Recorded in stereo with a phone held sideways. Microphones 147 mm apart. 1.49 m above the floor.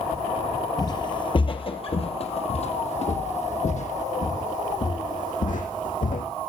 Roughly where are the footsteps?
Left.